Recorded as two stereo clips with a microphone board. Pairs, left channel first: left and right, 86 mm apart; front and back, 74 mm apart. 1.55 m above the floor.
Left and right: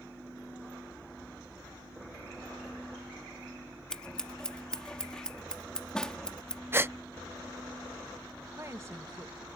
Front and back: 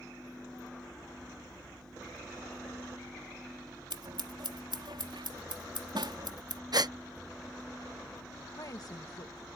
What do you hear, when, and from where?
3.9 s scissors: 170° left
6.7 s a gasp: 150° right
8.6 s a woman speaking: 35° right